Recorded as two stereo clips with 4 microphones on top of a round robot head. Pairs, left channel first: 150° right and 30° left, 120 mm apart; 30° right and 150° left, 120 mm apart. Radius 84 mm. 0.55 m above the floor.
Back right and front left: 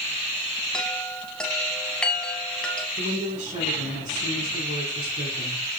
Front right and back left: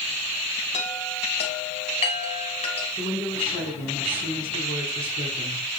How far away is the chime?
About 3 m.